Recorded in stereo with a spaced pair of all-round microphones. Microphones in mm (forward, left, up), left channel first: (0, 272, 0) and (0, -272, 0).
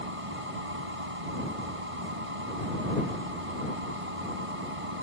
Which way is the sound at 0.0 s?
85° right.